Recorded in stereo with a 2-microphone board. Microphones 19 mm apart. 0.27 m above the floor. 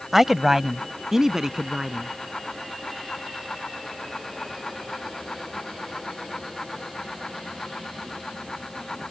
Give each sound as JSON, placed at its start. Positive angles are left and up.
{"t": 0.1, "sound": "a man speaking", "side_deg": -15}